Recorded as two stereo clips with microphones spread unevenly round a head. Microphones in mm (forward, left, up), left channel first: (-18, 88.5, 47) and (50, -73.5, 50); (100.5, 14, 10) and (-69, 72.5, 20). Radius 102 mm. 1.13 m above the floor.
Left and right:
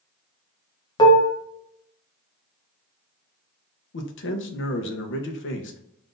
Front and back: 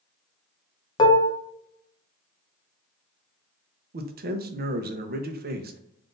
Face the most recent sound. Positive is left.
turn(degrees=125)